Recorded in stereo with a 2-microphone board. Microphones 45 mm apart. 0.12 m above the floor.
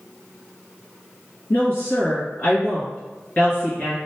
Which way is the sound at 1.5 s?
40° left (ahead or behind).